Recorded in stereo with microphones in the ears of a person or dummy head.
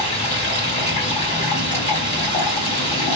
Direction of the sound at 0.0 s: 40° left (ahead or behind).